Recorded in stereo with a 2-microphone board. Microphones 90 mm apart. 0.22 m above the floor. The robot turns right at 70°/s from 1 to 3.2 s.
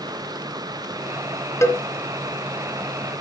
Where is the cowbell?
30° left (ahead or behind), 2.5 m; by 1.8 s 20° left (ahead or behind), 2.5 m.